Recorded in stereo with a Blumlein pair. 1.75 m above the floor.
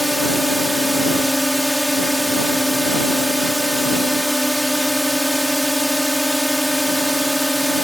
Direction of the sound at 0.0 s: Straight ahead.